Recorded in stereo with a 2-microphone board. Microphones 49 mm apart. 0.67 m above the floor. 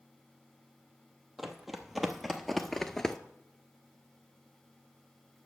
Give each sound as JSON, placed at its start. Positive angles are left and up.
{"t": 1.4, "sound": "running footsteps", "side_deg": -5, "distance_m": 1.1}